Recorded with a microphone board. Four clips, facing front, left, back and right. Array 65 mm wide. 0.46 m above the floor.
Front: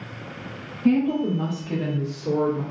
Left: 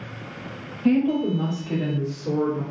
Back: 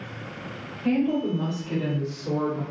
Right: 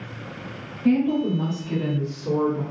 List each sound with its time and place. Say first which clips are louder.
0.8 s a woman speaking: even, front 3 dB; 110° left, 1.8 m; by 2.6 s 15° right, 1.4 m